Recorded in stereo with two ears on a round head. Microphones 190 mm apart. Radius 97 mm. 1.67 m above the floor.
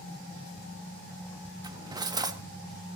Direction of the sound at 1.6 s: 20° right (ahead or behind).